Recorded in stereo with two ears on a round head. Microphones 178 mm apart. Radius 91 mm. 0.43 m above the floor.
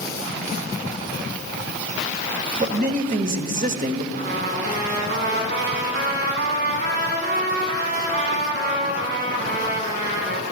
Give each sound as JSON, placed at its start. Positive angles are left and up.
{"t": 2.6, "sound": "a man speaking", "side_deg": -40, "distance_m": 1.3}
{"t": 4.1, "sound": "a trumpet", "side_deg": -60, "distance_m": 3.5}